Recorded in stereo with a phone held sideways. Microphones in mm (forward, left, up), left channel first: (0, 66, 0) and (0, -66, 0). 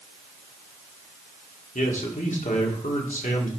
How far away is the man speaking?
About 2.0 m.